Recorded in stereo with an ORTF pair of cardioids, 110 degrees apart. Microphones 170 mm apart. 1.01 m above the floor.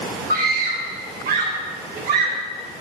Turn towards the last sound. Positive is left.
turn(degrees=-60)